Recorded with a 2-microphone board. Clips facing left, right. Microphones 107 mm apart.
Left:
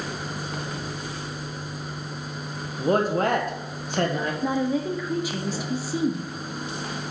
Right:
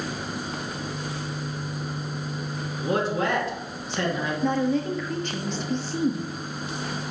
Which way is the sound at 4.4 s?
10° left (ahead or behind).